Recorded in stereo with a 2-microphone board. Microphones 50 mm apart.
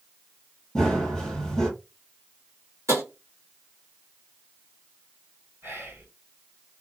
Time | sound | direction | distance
0.8 | running footsteps | 5° left (ahead or behind) | 1.8 m
2.9 | tapping | 85° right | 1.3 m
5.6 | whispering | 55° right (ahead or behind) | 1.5 m